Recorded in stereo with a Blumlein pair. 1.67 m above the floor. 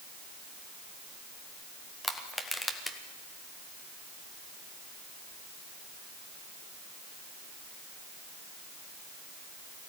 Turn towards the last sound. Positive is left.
turn(degrees=0)